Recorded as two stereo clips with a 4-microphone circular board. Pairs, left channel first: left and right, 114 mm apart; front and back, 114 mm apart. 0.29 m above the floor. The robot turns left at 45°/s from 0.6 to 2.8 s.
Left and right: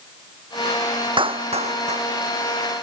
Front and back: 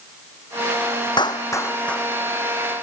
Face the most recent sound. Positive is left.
turn(degrees=-120)